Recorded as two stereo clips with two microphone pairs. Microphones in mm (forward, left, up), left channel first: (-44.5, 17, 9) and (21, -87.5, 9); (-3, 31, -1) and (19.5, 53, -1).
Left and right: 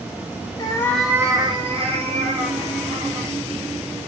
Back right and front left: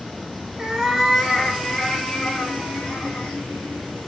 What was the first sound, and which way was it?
A cat meowing, 100° left.